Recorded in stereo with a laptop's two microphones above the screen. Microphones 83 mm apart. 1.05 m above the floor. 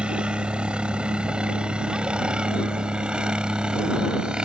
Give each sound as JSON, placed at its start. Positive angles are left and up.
{"t": 0.0, "sound": "a helicopter", "side_deg": -10}